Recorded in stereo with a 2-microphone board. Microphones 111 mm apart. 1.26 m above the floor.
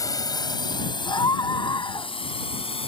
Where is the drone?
35° left (ahead or behind); by 2.9 s 65° left (ahead or behind).